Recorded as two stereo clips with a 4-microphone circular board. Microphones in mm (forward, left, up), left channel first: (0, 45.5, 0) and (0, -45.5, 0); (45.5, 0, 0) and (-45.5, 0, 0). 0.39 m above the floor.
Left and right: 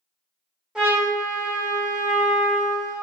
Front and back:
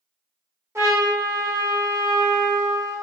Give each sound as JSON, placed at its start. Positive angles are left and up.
{"t": 0.8, "sound": "a trumpet", "azimuth_deg": -155, "distance_m": 1.0}